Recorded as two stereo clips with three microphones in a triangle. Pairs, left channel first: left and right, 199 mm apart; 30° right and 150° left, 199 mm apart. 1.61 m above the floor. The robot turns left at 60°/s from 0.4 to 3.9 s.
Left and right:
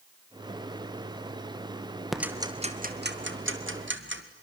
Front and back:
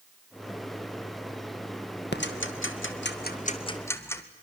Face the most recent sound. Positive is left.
turn(degrees=-105)